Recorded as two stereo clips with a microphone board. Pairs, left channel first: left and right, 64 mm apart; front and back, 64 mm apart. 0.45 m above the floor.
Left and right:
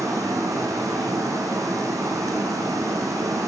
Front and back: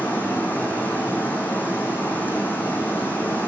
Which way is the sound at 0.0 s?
65° right.